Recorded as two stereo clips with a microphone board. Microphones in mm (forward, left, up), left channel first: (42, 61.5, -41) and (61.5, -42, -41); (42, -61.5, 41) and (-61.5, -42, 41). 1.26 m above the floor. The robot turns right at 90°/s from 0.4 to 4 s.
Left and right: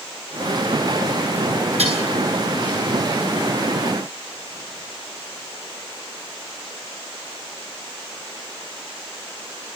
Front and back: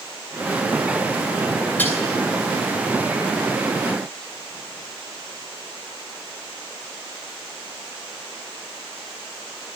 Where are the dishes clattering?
85° right, 9.5 m; by 2.0 s 65° right, 9.5 m.